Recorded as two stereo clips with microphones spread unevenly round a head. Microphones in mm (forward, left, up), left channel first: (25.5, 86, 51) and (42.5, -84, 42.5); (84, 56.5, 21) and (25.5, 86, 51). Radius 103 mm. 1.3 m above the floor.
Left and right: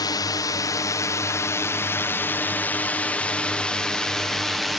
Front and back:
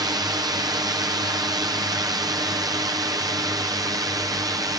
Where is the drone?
155° left; by 4.8 s 170° right.